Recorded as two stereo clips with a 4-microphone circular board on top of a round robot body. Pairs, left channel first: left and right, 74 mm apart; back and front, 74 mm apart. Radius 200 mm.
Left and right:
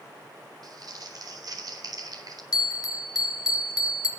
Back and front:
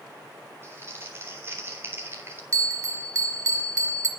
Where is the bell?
50° left, 1.5 m.